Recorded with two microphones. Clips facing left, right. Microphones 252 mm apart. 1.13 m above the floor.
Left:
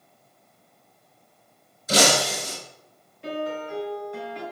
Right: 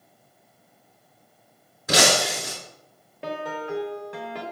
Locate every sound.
1.9 s breaking glass: 75° right (ahead or behind), 5 m
3.2 s a piano: 80° right, 2.5 m